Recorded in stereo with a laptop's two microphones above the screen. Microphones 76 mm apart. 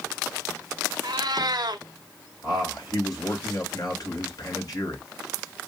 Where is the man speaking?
55° left (ahead or behind), 4.5 m.